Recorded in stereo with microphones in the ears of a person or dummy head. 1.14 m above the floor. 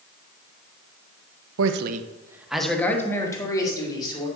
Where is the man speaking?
75° right (ahead or behind), 0.7 m; by 4.3 s 25° left (ahead or behind), 3 m.